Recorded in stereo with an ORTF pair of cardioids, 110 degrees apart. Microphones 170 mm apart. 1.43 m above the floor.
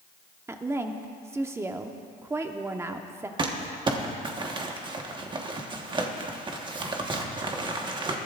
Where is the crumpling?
30° right, 1.3 m.